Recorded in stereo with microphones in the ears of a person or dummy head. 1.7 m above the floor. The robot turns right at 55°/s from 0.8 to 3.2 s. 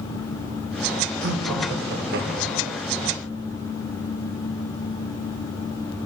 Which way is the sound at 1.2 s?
110° right.